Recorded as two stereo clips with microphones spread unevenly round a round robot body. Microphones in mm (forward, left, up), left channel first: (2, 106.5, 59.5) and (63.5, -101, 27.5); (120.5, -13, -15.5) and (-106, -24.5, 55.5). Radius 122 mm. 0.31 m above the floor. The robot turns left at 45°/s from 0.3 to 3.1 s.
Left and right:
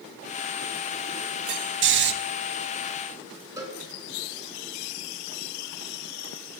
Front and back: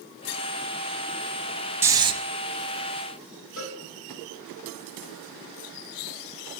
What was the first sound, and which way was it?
Snoring, 90° right.